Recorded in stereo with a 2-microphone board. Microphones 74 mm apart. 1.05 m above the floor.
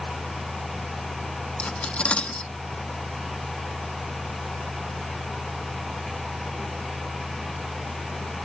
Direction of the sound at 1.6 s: 15° left (ahead or behind).